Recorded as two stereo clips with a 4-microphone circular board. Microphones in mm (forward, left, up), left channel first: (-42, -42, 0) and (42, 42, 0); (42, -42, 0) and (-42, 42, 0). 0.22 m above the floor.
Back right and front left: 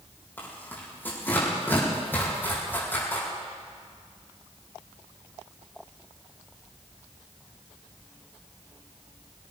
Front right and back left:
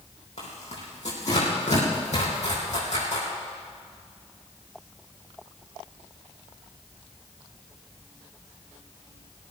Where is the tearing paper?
60° right, 5 m.